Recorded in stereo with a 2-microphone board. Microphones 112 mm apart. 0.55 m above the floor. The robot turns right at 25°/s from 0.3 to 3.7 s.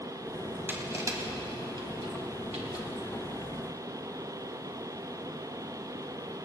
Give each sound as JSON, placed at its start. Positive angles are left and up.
{"t": 0.7, "sound": "crushing", "side_deg": -20, "distance_m": 1.8}